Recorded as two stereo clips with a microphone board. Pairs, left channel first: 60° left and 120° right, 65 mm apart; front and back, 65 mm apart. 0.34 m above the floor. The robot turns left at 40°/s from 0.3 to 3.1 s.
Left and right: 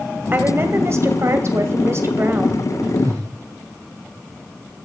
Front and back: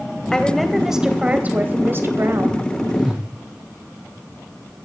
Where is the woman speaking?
75° right, 1.9 m; by 2.7 s 170° right, 1.9 m.